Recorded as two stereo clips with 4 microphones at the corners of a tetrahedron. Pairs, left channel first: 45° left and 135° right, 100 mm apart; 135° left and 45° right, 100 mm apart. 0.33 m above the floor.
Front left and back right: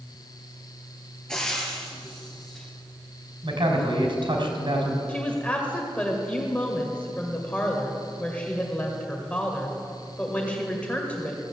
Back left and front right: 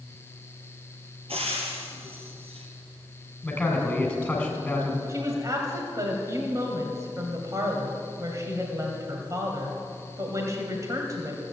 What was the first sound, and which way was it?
Frying, 40° right.